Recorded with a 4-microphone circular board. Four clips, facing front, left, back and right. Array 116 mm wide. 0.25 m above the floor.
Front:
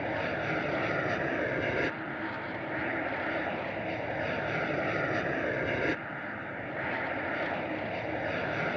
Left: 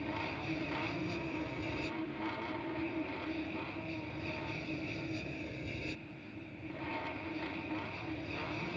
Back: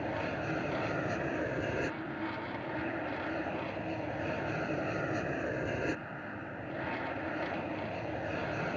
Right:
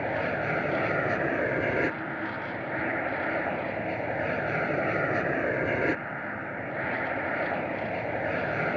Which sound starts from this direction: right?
An aircraft, at 0.0 s.